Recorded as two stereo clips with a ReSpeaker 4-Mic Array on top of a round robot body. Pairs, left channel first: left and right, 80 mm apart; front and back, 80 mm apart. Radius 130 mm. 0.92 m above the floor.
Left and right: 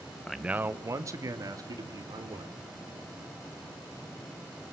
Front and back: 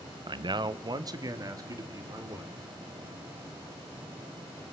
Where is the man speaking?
170° left, 0.6 m; by 2.5 s 130° right, 3.5 m.